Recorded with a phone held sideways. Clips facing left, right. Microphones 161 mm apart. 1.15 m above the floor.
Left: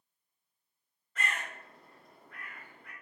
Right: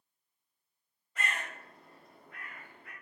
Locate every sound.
1.1 s a bird: 10° right (ahead or behind), 1.3 m